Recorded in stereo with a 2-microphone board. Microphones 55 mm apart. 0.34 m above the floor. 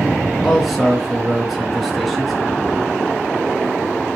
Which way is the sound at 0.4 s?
10° right (ahead or behind).